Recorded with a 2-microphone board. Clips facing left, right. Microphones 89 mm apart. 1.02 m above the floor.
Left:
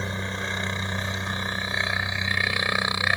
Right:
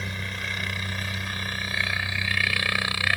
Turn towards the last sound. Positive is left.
turn(degrees=20)  # may be behind; listen again after turning